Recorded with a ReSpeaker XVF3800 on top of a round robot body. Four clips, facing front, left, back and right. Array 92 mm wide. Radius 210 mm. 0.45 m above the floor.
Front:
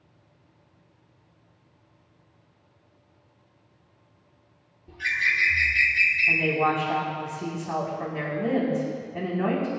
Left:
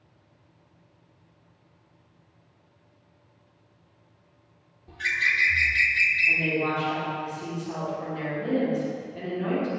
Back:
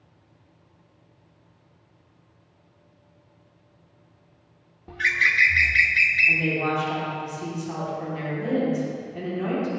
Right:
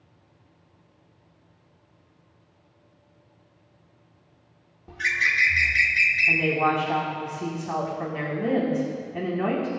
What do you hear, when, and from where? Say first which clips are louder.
4.9 s a bird: right 2 dB, back 4 dB; 160° right, 1.0 m
6.3 s a woman speaking: right 3 dB, front 1 dB; 55° right, 5.5 m